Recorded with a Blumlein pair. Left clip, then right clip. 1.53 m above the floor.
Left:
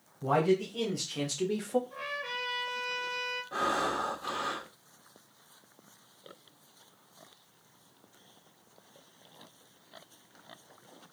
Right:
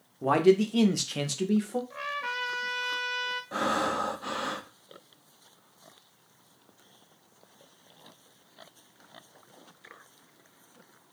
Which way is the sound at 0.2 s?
60° right.